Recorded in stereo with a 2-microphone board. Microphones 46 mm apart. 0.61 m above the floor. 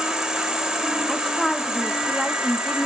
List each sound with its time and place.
0.0 s an insect: 15° right (ahead or behind), 1.6 m
1.1 s a woman speaking: 5° left (ahead or behind), 1.0 m